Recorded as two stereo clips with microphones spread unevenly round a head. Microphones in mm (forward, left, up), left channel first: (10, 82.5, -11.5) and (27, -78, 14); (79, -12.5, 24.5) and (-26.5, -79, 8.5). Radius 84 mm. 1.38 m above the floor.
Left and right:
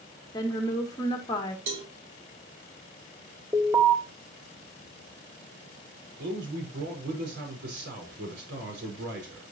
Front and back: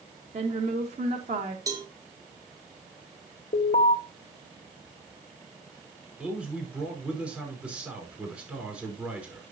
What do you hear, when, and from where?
0.3 s a woman speaking: 165° left, 2 m
1.7 s a cowbell: 85° right, 2.5 m
3.5 s an alarm: 5° right, 2 m
6.2 s a man speaking: 70° right, 5 m